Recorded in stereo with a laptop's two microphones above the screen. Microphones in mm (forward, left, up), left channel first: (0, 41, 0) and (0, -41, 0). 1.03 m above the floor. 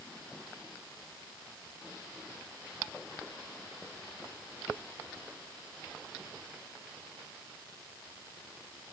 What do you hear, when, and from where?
Only background noise.